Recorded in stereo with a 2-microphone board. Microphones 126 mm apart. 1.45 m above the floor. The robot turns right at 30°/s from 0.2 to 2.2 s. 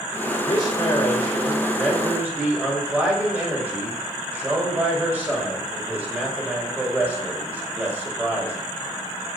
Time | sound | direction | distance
0.4 | a man speaking | 140° left | 5.5 m